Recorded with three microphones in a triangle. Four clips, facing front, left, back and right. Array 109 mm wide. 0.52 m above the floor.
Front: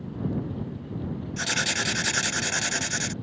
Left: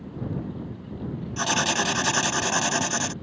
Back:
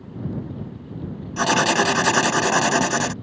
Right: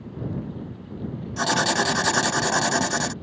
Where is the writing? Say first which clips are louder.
Right 3 dB, back 14 dB; 170° right.